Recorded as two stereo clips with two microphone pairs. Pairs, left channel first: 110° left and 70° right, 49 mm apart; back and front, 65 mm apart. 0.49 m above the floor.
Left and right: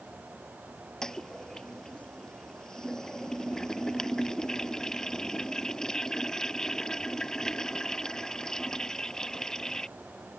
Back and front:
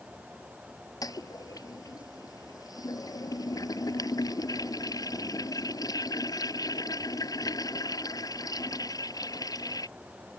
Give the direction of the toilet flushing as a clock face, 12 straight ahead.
6 o'clock.